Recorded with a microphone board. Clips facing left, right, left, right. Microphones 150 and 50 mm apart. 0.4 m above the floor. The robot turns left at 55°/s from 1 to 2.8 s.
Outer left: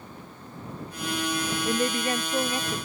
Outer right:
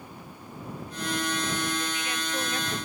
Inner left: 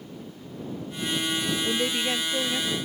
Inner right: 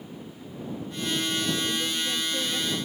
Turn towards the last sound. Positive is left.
turn(degrees=5)